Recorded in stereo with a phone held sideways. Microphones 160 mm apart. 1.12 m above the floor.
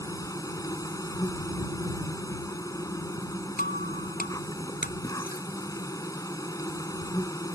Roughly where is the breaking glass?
Left.